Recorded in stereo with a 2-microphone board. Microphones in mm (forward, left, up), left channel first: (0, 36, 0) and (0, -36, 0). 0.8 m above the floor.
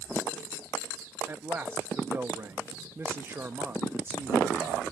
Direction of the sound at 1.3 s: 30° right (ahead or behind).